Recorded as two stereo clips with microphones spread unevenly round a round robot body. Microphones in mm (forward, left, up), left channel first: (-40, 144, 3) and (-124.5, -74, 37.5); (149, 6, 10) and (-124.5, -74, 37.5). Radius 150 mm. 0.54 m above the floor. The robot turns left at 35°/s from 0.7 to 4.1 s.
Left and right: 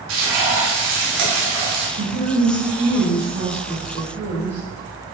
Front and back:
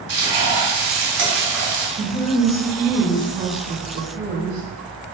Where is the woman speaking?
120° right, 1.8 m; by 4.6 s 165° left, 1.8 m.